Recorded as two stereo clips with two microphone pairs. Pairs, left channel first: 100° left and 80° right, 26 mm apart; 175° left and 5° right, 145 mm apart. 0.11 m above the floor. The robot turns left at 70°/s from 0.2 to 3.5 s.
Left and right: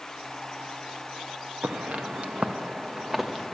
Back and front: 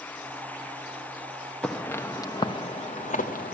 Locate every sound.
1.6 s footsteps: 105° right, 0.8 m; by 3.5 s 175° right, 1.2 m